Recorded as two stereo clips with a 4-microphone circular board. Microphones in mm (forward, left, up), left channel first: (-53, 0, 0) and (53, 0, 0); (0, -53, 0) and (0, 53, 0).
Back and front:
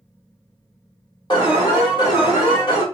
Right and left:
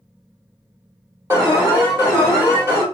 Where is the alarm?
150° left, 1.5 m.